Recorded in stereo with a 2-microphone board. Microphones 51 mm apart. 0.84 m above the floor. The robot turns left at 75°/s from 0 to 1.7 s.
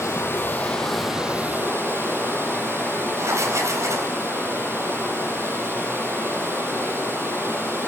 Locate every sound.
0.0 s running water: 75° left, 7 m; by 7.9 s 50° right, 7 m
3.2 s writing: 85° right, 4.5 m